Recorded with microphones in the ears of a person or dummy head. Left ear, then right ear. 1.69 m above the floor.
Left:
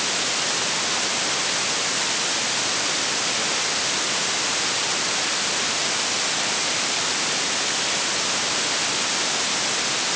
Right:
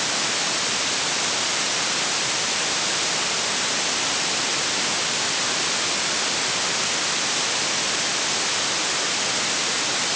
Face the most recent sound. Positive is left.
No sound to turn to.